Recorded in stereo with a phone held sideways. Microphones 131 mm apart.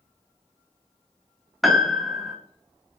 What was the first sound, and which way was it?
A piano, centre (ahead or behind).